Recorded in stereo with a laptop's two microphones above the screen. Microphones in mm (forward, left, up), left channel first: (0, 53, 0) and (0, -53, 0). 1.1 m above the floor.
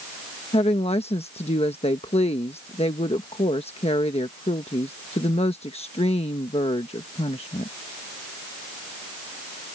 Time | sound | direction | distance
0.5 | a woman speaking | 70° left (ahead or behind) | ?